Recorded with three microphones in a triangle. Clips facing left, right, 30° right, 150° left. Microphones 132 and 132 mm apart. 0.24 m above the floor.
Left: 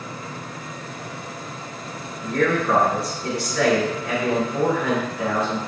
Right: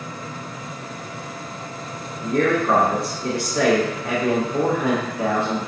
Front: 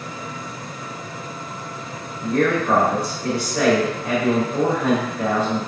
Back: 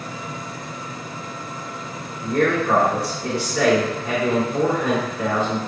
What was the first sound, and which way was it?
A man speaking, 55° right.